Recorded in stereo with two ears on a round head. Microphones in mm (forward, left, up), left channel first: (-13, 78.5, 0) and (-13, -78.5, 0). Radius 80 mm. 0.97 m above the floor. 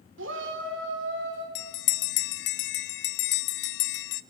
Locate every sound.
0.2 s a shout: 80° right, 3.5 m; by 1.4 s 75° right (ahead or behind), 5 m
1.6 s a bell: 65° left (ahead or behind), 0.6 m